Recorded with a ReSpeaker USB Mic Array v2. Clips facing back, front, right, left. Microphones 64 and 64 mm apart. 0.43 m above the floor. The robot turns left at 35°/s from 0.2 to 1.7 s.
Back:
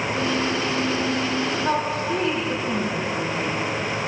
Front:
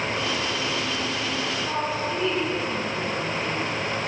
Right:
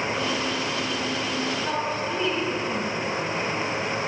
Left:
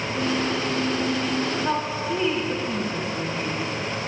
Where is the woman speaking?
170° left, 2.5 m.